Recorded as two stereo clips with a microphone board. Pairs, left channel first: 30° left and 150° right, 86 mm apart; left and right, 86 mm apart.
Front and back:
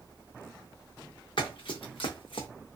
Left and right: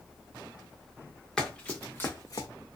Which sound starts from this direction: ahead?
Running footsteps, at 1.4 s.